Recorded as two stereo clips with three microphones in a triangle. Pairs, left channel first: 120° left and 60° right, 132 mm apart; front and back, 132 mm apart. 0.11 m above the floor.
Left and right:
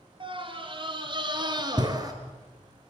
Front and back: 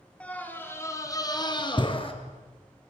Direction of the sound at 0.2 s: 75° right.